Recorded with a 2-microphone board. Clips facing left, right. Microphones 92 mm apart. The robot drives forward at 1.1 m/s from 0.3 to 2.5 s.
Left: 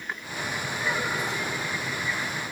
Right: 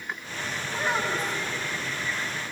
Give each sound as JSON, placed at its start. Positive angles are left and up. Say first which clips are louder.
{"t": 0.7, "sound": "a child speaking", "louder": "right 3 dB", "side_deg": -35, "distance_m": 5.0}